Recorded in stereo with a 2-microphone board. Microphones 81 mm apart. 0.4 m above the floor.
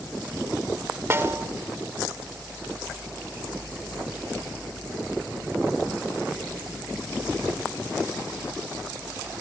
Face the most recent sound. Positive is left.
turn(degrees=-30)  # may be behind; listen again after turning